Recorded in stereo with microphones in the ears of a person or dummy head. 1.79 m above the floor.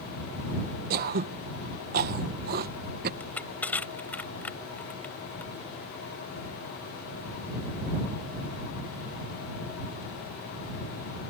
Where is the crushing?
10° left (ahead or behind).